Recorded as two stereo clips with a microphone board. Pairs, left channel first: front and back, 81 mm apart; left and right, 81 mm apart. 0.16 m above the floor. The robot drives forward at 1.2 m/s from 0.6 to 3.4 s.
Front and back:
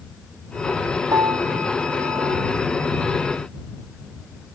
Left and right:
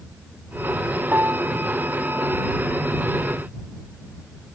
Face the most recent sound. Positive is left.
turn(degrees=-165)